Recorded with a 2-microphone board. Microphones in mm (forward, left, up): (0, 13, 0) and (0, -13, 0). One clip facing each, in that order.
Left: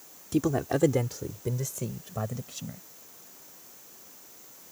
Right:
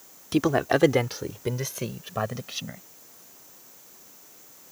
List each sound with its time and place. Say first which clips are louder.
0.3 s a man speaking: right 4 dB; 55° right (ahead or behind); by 2.8 s 50° right (ahead or behind)